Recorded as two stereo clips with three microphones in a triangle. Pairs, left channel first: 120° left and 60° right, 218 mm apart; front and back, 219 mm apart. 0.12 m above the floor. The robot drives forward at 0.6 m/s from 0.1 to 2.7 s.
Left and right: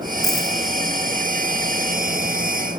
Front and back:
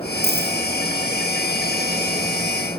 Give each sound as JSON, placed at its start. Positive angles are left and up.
{"t": 0.2, "sound": "a dropped coin", "azimuth_deg": 120, "distance_m": 4.0}